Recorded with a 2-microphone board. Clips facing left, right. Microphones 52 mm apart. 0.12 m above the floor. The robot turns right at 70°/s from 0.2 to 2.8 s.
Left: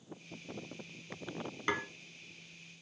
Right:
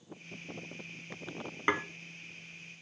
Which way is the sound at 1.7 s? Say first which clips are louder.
Right 4 dB; 25° right (ahead or behind).